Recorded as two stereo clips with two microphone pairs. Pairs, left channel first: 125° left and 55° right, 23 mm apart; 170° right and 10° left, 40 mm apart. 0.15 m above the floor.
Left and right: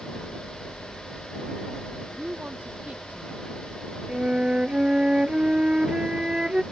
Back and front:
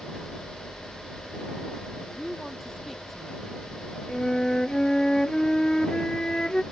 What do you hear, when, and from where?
2.0 s a woman speaking: 75° right
4.1 s a flute: 100° right